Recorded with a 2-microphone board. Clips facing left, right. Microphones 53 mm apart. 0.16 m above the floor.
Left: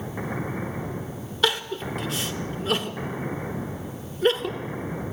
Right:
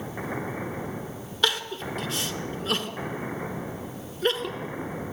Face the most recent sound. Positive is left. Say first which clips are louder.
# left 2 dB
turn(degrees=5)  # may be behind; listen again after turning